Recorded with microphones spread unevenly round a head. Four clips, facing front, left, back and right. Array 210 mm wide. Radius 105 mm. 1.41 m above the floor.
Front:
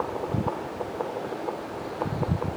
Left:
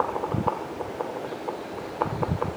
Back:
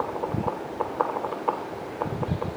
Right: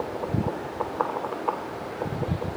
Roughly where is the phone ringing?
No phone ringing in this recording.